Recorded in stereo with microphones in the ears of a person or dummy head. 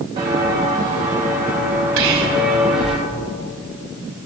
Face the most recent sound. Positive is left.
turn(degrees=-70)  # may be behind; listen again after turning